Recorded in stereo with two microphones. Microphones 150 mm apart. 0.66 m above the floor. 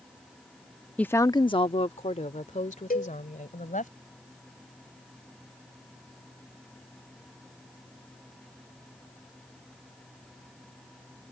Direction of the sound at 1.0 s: 10° left (ahead or behind).